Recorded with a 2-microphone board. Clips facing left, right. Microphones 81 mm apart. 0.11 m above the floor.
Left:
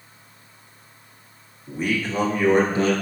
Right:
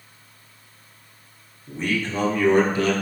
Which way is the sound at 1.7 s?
5° left (ahead or behind).